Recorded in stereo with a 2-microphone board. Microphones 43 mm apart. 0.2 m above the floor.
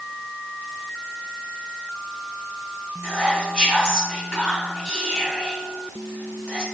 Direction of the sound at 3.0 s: 20° right (ahead or behind).